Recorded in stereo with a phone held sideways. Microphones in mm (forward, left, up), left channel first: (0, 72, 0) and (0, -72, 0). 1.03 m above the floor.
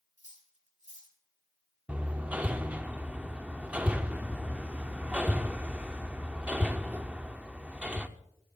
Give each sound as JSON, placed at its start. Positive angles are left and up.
{"t": 0.2, "sound": "cutlery clinking", "side_deg": -60, "distance_m": 4.5}
{"t": 1.9, "sound": "hammering", "side_deg": -10, "distance_m": 0.6}